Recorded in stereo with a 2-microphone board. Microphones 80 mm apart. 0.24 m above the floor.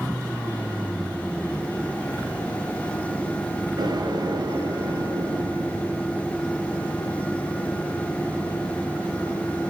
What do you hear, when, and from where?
3.8 s an explosion: 70° right (ahead or behind), 3 m